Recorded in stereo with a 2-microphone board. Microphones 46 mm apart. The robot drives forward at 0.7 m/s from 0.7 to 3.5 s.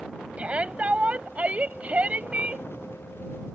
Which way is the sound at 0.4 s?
30° right (ahead or behind).